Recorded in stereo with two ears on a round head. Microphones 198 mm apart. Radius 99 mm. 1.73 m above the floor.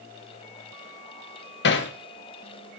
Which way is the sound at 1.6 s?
55° left (ahead or behind).